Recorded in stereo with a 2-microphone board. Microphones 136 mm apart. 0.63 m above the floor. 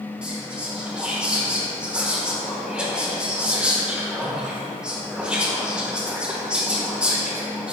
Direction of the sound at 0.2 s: 5° right (ahead or behind).